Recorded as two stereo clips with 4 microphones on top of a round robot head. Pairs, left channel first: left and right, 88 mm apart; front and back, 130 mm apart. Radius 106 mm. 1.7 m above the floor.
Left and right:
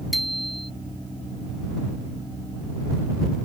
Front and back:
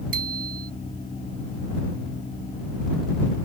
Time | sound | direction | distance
0.1 | a bicycle bell | straight behind | ?